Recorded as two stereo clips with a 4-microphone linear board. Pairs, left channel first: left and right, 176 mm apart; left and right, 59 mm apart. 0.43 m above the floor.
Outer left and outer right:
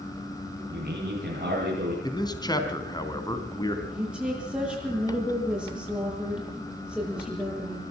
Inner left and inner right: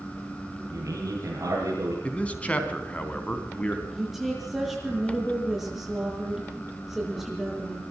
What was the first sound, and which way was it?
A man speaking, 55° right (ahead or behind).